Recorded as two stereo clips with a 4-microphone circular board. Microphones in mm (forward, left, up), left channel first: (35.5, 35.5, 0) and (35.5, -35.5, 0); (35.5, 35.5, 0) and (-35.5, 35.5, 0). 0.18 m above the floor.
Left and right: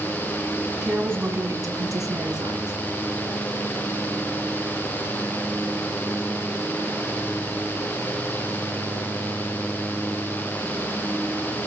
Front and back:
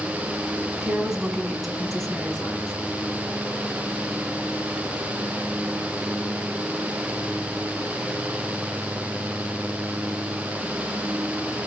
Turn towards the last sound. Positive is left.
turn(degrees=-80)